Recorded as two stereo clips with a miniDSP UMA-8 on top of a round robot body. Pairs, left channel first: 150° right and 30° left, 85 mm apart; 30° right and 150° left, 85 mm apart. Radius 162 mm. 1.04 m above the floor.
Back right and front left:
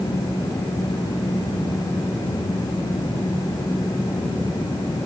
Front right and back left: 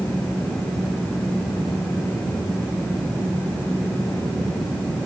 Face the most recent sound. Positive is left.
No sound to turn to.